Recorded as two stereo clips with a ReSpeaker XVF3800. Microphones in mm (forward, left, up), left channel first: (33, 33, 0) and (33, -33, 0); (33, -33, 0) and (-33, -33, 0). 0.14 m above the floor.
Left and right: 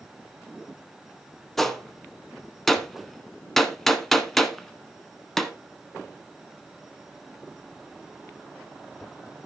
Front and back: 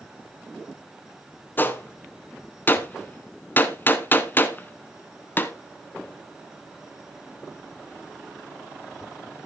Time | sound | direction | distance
1.6 | a gunshot | 5° left | 1.0 m